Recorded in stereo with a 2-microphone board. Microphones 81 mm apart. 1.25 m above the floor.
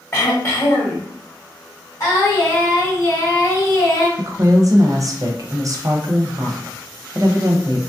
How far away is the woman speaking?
About 0.6 m.